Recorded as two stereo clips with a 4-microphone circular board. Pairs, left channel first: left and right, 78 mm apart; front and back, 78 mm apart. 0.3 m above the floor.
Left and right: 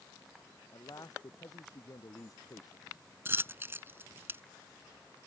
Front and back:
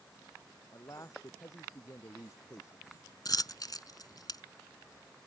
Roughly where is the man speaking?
Ahead left.